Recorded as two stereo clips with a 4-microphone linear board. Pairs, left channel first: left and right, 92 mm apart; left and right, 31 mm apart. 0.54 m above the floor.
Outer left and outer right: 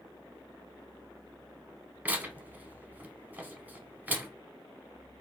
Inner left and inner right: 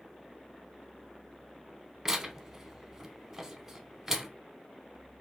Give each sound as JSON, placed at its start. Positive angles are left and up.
{"t": 2.0, "sound": "tearing paper", "side_deg": -20, "distance_m": 0.6}